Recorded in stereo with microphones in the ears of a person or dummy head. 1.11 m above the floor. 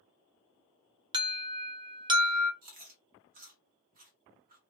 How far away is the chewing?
About 0.8 m.